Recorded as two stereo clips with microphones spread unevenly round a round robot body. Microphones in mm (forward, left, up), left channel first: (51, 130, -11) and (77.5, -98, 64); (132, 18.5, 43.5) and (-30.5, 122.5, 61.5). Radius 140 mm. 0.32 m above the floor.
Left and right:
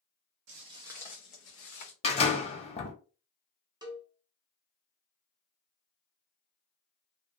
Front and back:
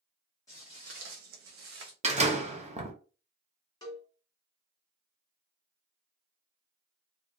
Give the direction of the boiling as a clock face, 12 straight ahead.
I don't hear boiling.